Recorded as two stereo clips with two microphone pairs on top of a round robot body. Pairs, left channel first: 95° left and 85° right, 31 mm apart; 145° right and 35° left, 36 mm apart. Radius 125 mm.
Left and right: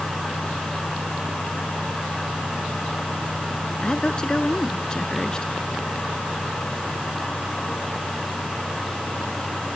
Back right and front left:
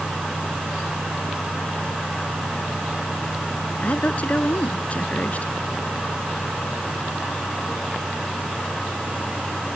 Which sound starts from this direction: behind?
A woman speaking, at 3.8 s.